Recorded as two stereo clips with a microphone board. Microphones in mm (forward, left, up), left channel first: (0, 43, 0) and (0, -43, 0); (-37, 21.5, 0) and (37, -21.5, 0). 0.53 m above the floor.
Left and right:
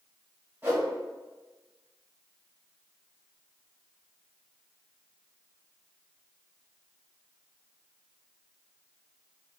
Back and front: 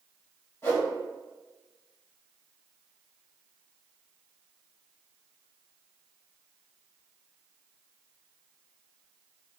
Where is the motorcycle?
No motorcycle in this recording.